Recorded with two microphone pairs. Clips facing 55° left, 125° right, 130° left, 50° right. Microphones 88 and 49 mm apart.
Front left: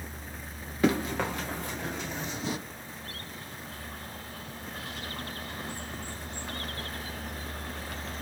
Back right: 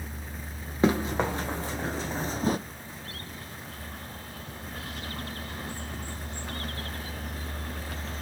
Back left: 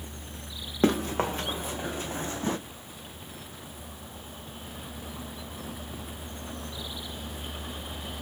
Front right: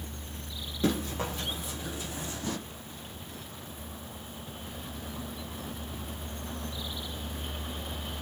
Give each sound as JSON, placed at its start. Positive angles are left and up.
{"t": 0.8, "sound": "running footsteps", "azimuth_deg": 170, "distance_m": 1.6}